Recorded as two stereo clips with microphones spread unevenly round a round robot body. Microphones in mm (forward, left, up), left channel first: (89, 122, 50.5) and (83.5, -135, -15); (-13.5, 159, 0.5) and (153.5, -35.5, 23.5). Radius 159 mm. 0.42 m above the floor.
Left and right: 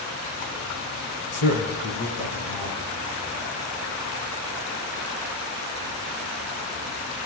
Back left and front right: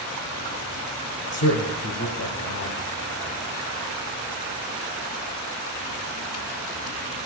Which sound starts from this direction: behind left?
A man speaking, at 1.3 s.